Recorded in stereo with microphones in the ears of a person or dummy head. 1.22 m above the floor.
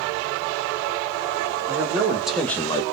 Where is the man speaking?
20° right (ahead or behind), 1.3 m; by 2.8 s 25° left (ahead or behind), 0.6 m.